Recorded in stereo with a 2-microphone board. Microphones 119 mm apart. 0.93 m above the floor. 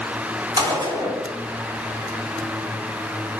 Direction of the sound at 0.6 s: 45° right (ahead or behind).